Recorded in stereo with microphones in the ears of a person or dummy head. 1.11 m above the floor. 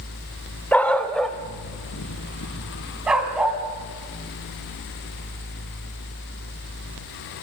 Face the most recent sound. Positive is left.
turn(degrees=-5)  # may be behind; listen again after turning